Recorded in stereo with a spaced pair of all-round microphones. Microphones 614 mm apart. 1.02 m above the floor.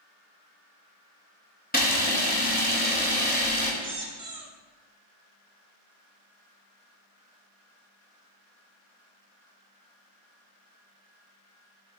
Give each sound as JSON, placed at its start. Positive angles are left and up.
{"t": 1.7, "sound": "a camera shutter", "side_deg": 15, "distance_m": 0.6}
{"t": 3.8, "sound": "a squeak", "side_deg": -75, "distance_m": 0.5}